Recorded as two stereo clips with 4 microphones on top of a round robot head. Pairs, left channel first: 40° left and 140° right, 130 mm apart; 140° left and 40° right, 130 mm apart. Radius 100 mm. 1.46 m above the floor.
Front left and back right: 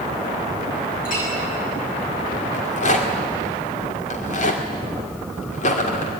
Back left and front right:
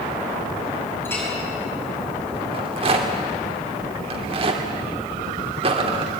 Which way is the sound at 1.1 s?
65° left.